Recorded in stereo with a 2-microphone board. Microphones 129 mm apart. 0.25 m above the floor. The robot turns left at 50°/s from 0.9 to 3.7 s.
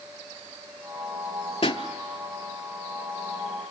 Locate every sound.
1.6 s a pop: 45° left (ahead or behind), 0.8 m; by 1.8 s 35° left (ahead or behind), 0.8 m